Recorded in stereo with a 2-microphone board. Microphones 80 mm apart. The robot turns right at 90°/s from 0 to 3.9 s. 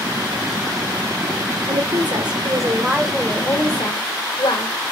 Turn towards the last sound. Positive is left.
turn(degrees=75)